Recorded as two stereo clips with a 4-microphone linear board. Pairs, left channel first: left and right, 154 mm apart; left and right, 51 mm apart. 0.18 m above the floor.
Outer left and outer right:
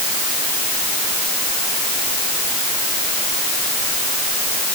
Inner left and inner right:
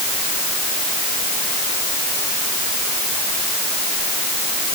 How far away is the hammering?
No hammering in this recording.